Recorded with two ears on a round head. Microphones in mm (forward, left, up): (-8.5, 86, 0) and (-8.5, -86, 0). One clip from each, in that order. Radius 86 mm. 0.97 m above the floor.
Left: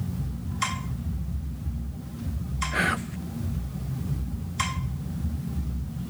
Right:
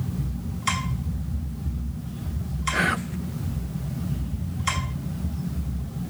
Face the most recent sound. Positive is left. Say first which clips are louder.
# right 2 dB
turn(degrees=5)  # may be behind; listen again after turning